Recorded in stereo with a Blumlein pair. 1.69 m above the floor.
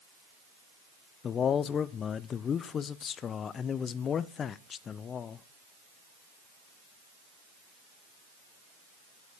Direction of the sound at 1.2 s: 25° left.